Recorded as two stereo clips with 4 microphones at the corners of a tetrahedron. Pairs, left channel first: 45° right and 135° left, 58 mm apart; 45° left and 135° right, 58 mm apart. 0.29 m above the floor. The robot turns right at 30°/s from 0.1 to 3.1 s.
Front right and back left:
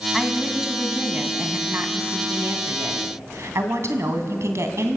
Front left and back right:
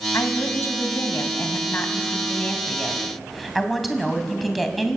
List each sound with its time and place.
0.1 s a woman speaking: 45° left, 2.5 m; by 5.0 s 135° left, 2.5 m